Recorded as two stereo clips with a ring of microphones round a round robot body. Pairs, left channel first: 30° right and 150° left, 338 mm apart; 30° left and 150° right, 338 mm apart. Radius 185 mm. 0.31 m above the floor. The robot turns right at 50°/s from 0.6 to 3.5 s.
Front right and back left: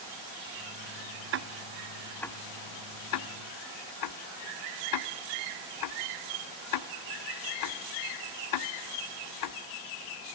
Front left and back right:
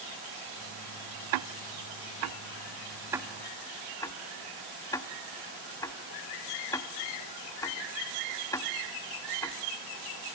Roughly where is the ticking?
Behind.